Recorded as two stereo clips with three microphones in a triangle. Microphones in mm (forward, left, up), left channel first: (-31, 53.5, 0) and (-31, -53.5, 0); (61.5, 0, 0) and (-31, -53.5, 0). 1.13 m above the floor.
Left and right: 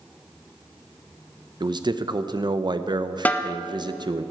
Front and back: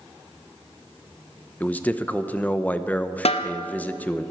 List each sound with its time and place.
1.6 s a man speaking: 45° right, 0.6 m
3.2 s a snare drum: 20° left, 0.7 m